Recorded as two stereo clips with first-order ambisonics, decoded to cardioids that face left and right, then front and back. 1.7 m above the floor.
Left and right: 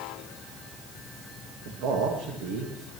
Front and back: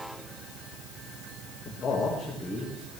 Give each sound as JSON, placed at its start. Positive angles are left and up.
{"t": 1.6, "sound": "a man speaking", "azimuth_deg": -65, "distance_m": 1.6}